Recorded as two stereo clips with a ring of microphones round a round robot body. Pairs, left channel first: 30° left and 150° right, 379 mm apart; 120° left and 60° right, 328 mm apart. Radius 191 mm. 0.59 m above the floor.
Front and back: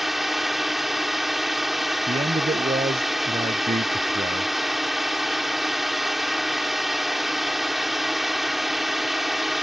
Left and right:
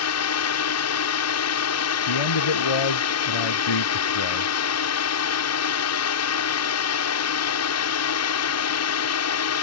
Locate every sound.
0.0 s a drone: 120° left
2.1 s a man speaking: 135° left